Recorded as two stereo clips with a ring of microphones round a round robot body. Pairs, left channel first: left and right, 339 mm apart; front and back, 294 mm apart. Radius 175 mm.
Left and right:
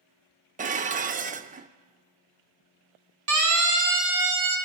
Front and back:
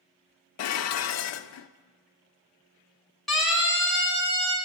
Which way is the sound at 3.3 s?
90° right.